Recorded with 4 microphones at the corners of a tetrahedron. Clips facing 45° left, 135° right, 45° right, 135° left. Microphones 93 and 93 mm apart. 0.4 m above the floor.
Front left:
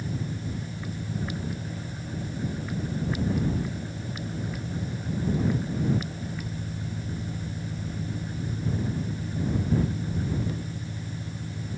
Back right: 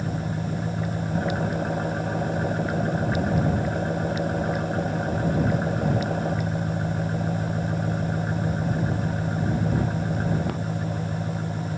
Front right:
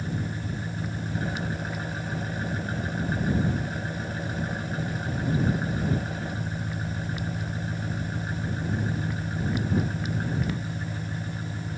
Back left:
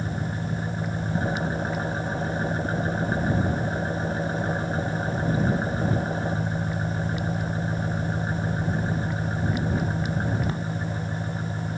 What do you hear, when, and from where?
0.0 s an engine running: 165° right